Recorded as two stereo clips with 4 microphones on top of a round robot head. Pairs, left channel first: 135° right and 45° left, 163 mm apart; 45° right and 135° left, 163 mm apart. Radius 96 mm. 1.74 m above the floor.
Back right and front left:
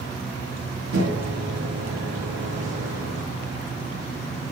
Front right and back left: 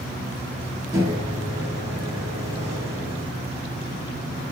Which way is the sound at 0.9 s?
60° left.